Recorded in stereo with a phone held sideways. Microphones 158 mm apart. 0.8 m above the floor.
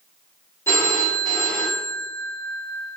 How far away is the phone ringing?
About 0.8 m.